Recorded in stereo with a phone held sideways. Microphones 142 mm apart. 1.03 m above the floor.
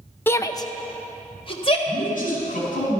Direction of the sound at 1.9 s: 70° left (ahead or behind).